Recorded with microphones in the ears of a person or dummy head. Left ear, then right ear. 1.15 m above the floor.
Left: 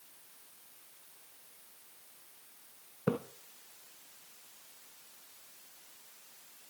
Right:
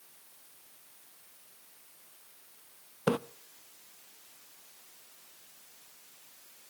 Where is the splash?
50° right (ahead or behind), 0.6 m.